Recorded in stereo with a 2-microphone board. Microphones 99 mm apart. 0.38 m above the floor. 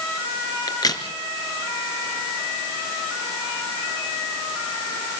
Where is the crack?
40° left (ahead or behind), 3 m.